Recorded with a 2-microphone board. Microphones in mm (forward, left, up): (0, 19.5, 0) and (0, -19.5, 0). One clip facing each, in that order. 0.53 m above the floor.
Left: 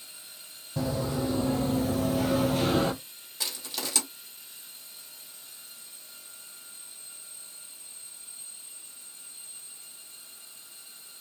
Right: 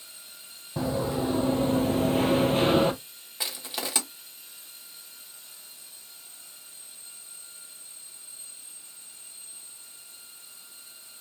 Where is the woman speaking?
I don't hear a woman speaking.